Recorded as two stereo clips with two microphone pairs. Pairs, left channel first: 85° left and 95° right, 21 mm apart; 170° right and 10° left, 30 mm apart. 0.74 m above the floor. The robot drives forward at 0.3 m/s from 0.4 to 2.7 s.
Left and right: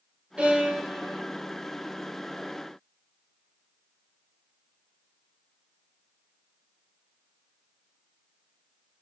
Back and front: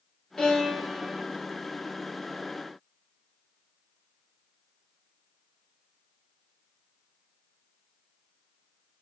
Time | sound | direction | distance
0.4 | a violin | 110° right | 2.5 m